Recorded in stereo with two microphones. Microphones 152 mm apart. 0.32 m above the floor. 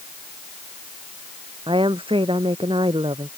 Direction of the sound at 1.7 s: 35° right (ahead or behind).